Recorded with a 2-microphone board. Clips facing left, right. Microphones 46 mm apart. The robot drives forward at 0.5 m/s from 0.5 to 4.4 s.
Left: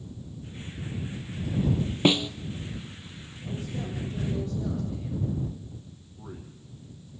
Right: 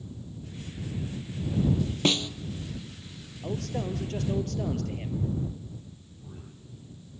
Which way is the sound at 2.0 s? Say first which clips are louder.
Left 4 dB; 15° left (ahead or behind).